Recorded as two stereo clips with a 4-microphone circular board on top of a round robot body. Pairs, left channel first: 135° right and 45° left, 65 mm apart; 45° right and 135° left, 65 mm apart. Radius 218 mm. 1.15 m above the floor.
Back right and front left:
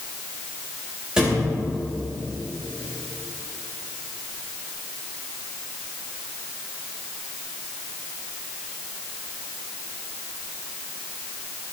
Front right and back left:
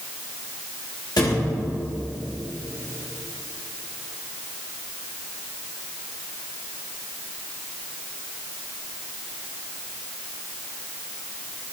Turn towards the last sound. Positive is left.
turn(degrees=-35)